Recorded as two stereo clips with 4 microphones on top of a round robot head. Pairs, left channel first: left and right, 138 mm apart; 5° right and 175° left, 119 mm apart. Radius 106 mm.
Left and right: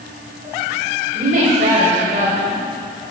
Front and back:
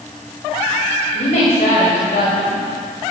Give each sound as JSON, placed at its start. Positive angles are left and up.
{"t": 1.1, "sound": "a woman speaking", "azimuth_deg": -45, "distance_m": 5.0}